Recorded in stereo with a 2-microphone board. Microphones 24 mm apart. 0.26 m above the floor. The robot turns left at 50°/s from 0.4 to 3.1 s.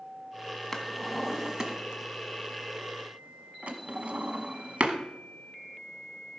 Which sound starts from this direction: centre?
A drawer, at 0.7 s.